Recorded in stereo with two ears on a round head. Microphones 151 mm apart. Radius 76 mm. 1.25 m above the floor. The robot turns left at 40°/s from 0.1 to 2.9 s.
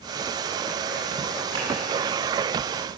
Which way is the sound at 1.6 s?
35° right (ahead or behind).